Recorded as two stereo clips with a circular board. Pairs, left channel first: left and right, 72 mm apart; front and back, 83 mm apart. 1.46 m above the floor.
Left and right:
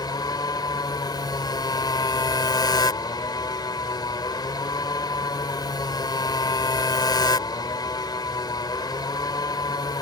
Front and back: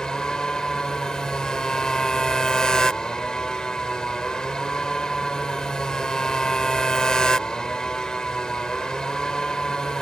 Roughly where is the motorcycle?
Left.